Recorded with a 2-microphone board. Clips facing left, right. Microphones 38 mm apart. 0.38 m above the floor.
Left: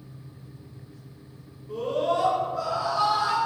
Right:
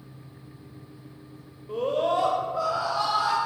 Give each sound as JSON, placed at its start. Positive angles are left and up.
{"t": 1.7, "sound": "a scream", "side_deg": -40, "distance_m": 1.2}